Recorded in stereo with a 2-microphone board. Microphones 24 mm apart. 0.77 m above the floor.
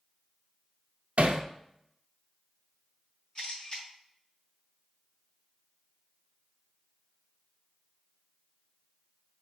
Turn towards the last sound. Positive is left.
turn(degrees=35)  # may be behind; listen again after turning